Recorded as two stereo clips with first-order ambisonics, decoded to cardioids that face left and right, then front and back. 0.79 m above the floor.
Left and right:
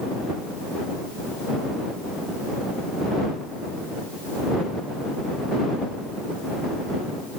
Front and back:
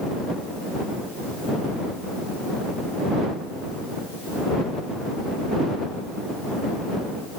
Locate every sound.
Only background noise.